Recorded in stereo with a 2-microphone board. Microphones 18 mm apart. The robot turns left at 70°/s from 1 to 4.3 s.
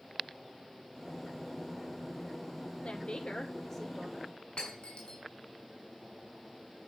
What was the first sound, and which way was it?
A woman speaking, 90° left.